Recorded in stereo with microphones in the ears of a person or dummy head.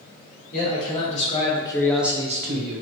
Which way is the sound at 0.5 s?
45° left (ahead or behind).